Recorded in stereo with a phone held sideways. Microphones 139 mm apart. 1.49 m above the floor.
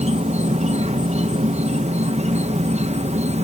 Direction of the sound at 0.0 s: 45° right (ahead or behind).